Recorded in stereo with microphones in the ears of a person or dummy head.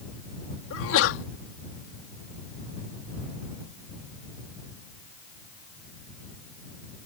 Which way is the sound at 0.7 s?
75° left (ahead or behind).